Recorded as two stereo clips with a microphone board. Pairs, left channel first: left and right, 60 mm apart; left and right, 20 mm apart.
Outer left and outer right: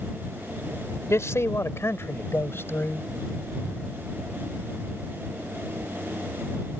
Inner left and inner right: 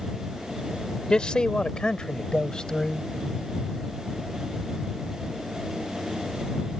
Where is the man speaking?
55° left (ahead or behind); by 3.1 s 40° left (ahead or behind).